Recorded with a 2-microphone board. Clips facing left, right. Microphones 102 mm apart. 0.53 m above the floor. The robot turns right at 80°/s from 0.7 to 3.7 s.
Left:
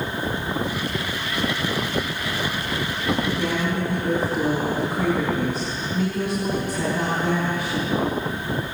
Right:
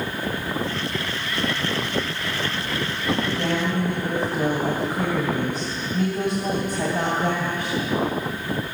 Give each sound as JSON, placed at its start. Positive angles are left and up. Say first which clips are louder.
{"t": 3.2, "sound": "a woman speaking", "louder": "even", "azimuth_deg": -125, "distance_m": 3.0}